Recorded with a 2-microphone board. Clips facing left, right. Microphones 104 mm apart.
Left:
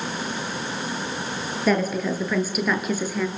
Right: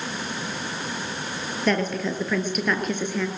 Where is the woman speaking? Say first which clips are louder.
Left 2 dB; 5° left (ahead or behind), 6.5 m.